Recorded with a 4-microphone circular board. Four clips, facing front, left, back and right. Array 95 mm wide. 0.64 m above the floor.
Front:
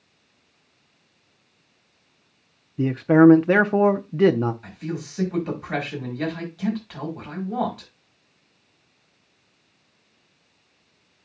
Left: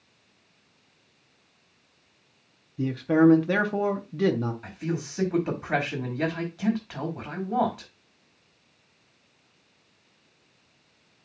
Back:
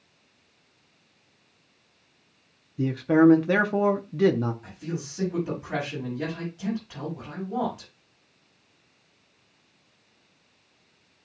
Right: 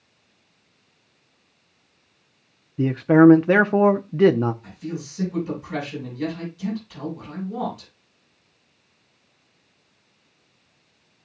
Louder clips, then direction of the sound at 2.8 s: Right 6 dB, front 4 dB; 55° right.